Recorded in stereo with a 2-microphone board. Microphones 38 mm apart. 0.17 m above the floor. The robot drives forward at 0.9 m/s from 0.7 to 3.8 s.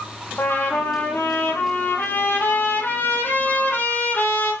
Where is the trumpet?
70° left (ahead or behind), 4.5 m; by 4.5 s 65° left (ahead or behind), 5 m.